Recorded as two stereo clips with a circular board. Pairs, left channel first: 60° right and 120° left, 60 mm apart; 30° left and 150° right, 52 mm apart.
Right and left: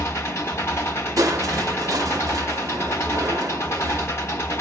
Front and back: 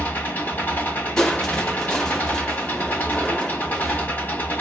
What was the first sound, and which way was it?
An engine running, 20° right.